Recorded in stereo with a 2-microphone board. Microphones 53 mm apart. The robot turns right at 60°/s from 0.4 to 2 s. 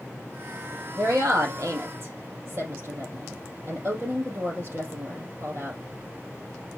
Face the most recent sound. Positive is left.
turn(degrees=-50)  # may be behind; listen again after turning